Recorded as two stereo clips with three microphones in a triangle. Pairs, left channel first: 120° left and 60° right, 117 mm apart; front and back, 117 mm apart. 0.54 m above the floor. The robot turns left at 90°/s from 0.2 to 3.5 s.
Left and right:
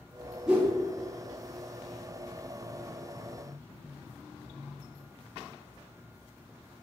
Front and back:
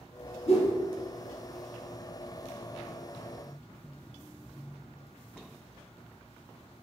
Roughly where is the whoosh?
Ahead left.